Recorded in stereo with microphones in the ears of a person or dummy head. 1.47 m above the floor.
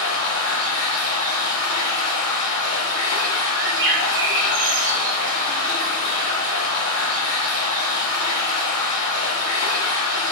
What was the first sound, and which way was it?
Running water, 25° left (ahead or behind).